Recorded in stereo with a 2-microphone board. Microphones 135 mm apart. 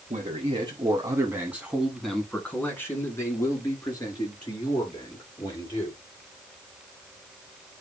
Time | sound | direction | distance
0.1 | a man speaking | 50° right (ahead or behind) | 1.6 m